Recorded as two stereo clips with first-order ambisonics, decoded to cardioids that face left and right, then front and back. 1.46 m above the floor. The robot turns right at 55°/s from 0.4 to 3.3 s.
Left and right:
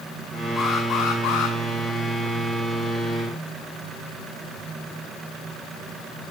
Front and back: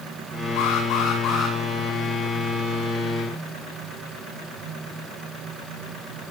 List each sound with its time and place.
0.6 s an alarm: 15° left, 9 m; by 1.6 s 70° left, 9 m